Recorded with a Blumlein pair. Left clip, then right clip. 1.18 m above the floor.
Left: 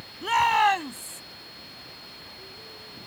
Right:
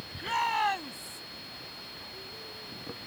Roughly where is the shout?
Left.